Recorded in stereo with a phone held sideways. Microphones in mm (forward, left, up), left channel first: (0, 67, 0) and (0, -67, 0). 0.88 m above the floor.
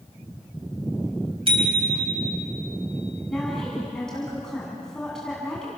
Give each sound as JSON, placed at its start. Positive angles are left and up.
{"t": 1.5, "sound": "a bicycle bell", "side_deg": -45, "distance_m": 4.0}
{"t": 3.3, "sound": "a woman speaking", "side_deg": 5, "distance_m": 8.5}